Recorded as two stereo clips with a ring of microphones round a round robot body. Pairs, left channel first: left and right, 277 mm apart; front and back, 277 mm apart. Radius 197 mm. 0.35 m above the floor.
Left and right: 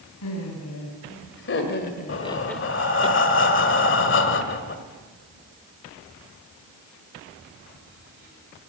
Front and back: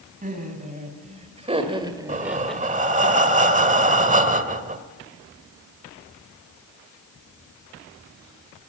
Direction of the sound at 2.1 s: 125° left.